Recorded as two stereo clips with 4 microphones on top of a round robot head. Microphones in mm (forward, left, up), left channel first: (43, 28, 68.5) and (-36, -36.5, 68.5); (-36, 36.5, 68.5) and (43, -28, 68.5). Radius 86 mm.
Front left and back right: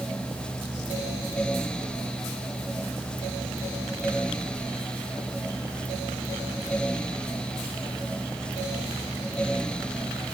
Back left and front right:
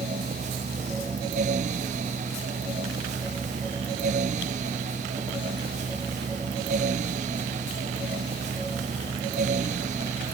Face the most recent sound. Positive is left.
No sound to turn to.